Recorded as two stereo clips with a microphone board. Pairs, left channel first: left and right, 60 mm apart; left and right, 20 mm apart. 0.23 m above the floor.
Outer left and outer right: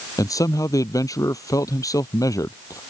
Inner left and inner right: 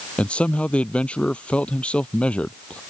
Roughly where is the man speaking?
Left.